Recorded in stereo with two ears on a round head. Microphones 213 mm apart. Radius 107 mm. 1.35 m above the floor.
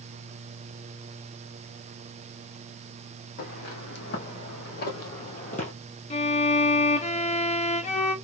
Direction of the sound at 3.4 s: 50° left (ahead or behind).